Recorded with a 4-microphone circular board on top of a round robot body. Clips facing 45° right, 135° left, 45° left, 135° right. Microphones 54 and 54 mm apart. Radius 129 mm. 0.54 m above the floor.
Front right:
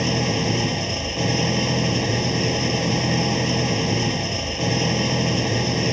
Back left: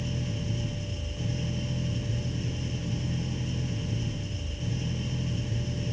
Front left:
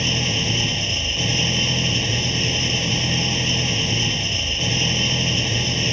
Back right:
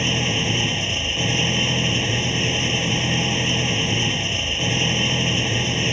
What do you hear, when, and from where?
0.0 s an engine running: 60° right